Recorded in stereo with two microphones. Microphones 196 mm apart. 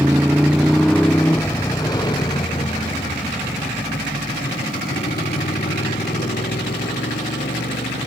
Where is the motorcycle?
10° right (ahead or behind); by 8.1 s 55° left (ahead or behind).